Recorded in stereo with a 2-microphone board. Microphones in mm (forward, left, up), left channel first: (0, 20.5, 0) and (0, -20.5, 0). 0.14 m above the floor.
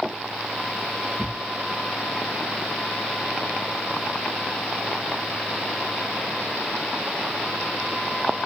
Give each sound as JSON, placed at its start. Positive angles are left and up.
{"t": 1.2, "sound": "a thud", "side_deg": -40, "distance_m": 1.6}